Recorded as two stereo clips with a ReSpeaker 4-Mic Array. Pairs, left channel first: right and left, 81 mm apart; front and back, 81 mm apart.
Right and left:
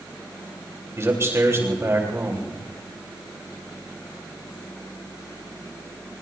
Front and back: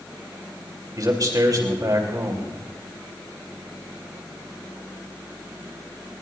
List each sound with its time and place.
1.0 s a man speaking: 140° left, 3.5 m